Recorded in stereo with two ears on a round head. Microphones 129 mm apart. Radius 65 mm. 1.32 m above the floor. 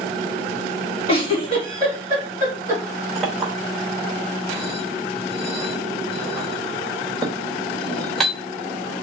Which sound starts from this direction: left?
A giggle, at 1.1 s.